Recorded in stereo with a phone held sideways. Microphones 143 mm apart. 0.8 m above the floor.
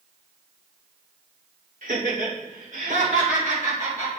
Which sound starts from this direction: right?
Laughter, at 1.8 s.